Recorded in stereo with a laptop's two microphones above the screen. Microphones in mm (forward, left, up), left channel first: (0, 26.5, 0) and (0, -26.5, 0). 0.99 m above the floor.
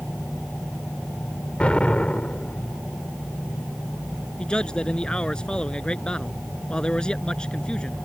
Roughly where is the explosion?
Left.